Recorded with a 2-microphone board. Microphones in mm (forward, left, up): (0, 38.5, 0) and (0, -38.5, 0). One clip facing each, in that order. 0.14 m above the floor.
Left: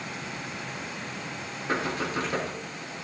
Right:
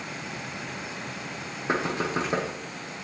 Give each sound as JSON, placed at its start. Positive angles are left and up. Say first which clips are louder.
{"t": 1.7, "sound": "knocking", "louder": "right 2 dB", "side_deg": -25, "distance_m": 4.0}